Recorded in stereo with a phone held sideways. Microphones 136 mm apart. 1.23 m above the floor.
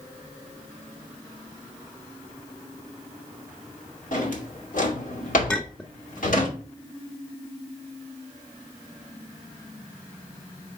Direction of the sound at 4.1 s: 65° left (ahead or behind).